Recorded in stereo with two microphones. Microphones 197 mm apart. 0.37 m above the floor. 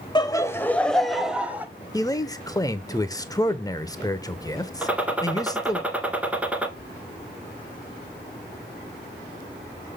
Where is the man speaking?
20° left (ahead or behind), 0.8 m.